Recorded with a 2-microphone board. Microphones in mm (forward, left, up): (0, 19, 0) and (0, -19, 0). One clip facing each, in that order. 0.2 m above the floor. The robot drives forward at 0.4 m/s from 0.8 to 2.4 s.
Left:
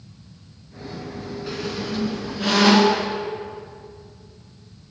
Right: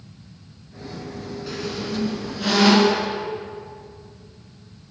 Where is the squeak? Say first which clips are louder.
Even; 10° left (ahead or behind), 1.4 m.